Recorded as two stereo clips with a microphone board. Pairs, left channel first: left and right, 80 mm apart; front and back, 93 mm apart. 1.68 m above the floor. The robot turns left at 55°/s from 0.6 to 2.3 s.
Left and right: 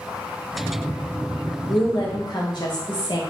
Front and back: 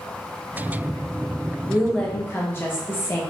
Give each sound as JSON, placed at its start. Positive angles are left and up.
{"t": 1.7, "sound": "a woman speaking", "azimuth_deg": 100, "distance_m": 0.7}